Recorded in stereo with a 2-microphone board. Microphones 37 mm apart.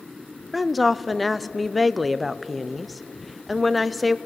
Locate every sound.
0.5 s a woman speaking: centre (ahead or behind), 0.6 m